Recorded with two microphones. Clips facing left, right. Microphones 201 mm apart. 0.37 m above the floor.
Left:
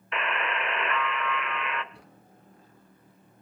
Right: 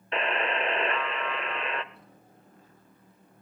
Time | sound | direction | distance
0.1 | a buzzer | 30° right (ahead or behind) | 0.7 m
1.9 | a drawer | 85° left | 3 m